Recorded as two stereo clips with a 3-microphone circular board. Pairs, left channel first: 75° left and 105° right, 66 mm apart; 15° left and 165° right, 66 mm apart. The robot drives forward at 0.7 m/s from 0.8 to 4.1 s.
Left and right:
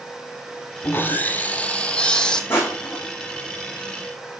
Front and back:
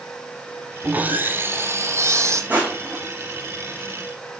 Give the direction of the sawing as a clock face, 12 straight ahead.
8 o'clock.